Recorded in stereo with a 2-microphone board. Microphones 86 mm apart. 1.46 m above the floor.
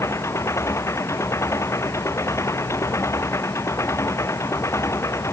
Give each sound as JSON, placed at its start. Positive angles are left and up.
{"t": 0.0, "sound": "an engine running", "side_deg": 30}